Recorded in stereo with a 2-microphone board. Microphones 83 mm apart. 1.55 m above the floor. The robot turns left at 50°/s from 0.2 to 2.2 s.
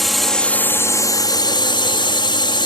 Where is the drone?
175° left; by 2.7 s 75° left.